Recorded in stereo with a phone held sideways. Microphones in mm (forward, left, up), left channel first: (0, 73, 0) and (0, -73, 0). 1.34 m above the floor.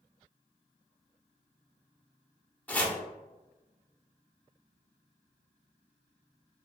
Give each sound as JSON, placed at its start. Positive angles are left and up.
{"t": 2.7, "sound": "chopping", "side_deg": 10, "distance_m": 0.7}